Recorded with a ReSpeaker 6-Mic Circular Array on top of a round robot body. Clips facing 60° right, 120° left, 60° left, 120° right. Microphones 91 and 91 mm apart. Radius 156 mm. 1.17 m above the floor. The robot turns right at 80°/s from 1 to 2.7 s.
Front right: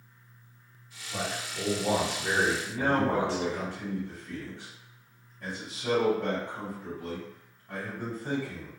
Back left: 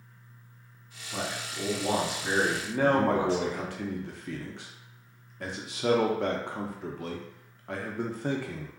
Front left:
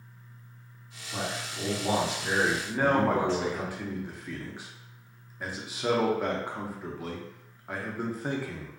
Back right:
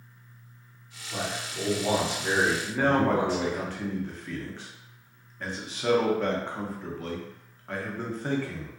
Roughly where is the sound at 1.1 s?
Behind.